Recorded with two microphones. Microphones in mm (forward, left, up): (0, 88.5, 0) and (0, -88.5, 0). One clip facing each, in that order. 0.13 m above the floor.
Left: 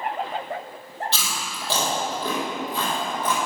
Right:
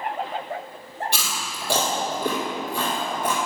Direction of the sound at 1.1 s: 15° right (ahead or behind).